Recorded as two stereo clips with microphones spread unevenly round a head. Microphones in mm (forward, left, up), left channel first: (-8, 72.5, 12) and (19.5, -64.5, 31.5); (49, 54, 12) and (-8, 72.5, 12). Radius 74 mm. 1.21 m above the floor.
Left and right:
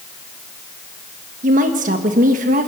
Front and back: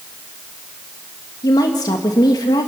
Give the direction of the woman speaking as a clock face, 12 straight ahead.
1 o'clock.